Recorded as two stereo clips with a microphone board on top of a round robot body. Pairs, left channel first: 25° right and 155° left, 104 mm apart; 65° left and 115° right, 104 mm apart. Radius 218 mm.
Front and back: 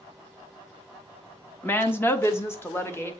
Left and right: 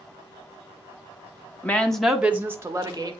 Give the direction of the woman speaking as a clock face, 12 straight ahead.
11 o'clock.